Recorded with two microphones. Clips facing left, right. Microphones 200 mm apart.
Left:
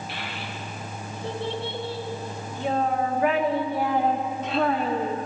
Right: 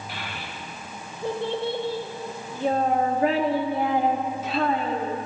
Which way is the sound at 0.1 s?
45° right (ahead or behind).